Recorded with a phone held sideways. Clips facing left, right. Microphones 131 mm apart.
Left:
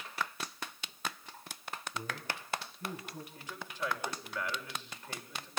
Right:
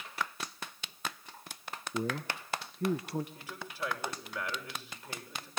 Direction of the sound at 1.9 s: 70° right (ahead or behind).